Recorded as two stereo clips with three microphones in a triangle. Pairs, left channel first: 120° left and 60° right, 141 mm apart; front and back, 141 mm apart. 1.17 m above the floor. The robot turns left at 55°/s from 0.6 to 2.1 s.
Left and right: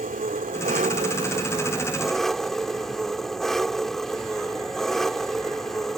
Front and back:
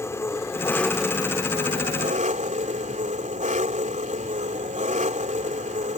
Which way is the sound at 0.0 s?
70° right.